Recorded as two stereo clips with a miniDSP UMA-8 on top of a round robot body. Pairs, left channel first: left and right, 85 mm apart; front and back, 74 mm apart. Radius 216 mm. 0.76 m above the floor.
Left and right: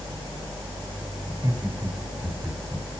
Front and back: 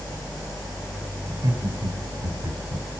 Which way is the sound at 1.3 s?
140° right.